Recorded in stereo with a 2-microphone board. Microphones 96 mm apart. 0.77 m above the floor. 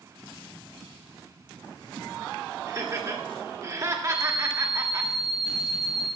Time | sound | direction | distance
2.7 | laughter | 35° right (ahead or behind) | 1.5 m
4.1 | an alarm clock | 70° left (ahead or behind) | 1.8 m